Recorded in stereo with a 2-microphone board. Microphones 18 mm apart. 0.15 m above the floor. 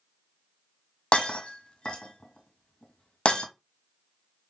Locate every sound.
1.1 s breaking glass: 70° left (ahead or behind), 1.4 m